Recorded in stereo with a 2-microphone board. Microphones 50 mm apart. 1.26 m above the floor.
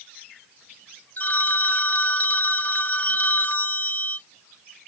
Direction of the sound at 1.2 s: 35° left (ahead or behind).